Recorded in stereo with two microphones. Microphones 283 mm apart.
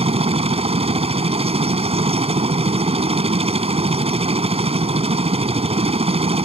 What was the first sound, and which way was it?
A helicopter, 20° right (ahead or behind).